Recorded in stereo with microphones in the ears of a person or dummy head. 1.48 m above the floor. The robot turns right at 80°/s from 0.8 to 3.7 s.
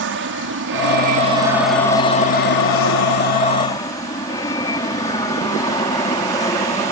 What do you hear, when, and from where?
0.0 s an aircraft: 70° right; by 6.9 s 160° left